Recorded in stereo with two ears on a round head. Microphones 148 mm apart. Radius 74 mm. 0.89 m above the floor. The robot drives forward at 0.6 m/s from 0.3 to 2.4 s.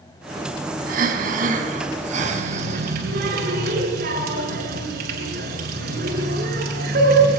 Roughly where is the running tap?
Right.